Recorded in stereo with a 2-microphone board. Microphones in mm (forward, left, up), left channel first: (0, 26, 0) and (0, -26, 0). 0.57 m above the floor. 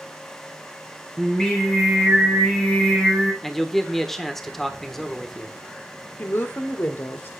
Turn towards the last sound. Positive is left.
turn(degrees=45)  # may be behind; listen again after turning